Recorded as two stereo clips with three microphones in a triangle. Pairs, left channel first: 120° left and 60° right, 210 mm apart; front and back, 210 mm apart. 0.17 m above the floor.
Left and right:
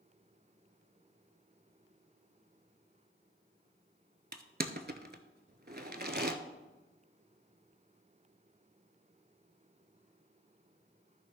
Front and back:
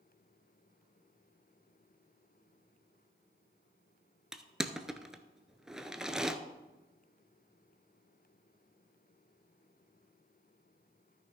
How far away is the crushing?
About 0.6 m.